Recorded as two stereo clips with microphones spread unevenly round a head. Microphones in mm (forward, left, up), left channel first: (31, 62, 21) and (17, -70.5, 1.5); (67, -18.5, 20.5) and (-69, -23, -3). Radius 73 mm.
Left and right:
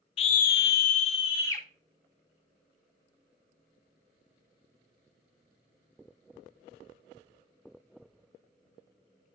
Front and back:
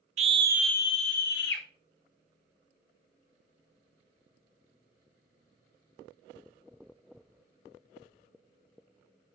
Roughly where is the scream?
Behind left.